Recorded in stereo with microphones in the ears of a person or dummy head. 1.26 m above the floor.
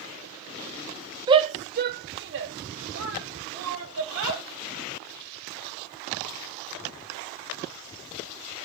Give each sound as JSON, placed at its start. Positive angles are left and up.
{"t": 1.3, "sound": "a shout", "side_deg": -20, "distance_m": 0.6}